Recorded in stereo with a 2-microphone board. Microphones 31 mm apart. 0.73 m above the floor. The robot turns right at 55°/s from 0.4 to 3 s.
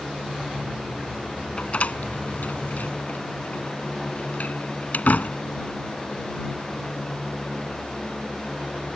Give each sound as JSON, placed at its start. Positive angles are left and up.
{"t": 1.6, "sound": "a door slam", "side_deg": 35}